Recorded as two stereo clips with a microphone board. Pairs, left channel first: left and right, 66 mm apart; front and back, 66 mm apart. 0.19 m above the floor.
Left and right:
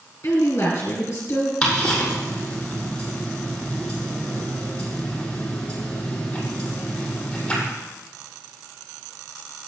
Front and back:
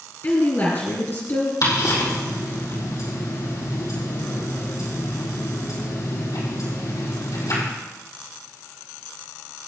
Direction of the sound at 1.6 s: 15° left.